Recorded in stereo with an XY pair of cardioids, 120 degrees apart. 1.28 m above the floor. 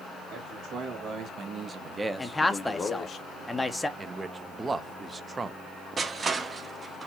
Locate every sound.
0.3 s a man speaking: 70° right, 1.5 m; by 3.2 s 50° left, 0.9 m
2.2 s a man speaking: 10° left, 0.6 m
4.0 s a man speaking: 25° right, 0.6 m
6.0 s crushing: 30° right, 0.7 m